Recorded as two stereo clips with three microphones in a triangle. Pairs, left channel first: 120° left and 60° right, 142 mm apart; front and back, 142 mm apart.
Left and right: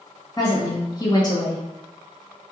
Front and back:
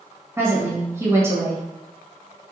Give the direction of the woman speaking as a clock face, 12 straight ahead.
8 o'clock.